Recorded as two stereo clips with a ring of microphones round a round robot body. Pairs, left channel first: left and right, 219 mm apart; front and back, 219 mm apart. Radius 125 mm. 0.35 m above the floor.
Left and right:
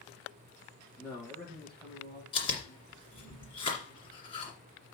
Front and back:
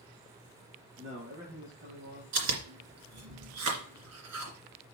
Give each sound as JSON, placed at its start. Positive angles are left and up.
{"t": 1.0, "sound": "a man speaking", "azimuth_deg": 175, "distance_m": 6.0}
{"t": 2.3, "sound": "chewing", "azimuth_deg": 160, "distance_m": 2.5}